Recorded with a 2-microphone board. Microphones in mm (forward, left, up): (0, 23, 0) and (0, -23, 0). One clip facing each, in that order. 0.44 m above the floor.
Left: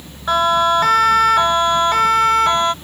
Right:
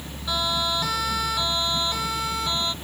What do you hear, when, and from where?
0.3 s a siren: 55° left (ahead or behind); by 2.8 s 60° left (ahead or behind)